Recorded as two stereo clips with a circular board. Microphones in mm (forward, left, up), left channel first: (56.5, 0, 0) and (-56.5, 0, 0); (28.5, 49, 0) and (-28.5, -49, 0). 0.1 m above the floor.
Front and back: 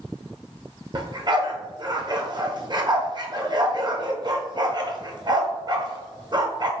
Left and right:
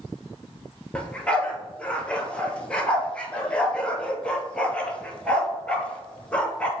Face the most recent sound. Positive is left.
turn(degrees=140)